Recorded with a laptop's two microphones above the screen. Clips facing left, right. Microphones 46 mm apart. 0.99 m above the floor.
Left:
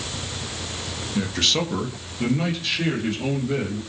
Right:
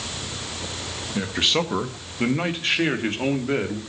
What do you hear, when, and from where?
1.1 s a man speaking: 10° right (ahead or behind), 1.6 m; by 3.8 s 50° right (ahead or behind), 3 m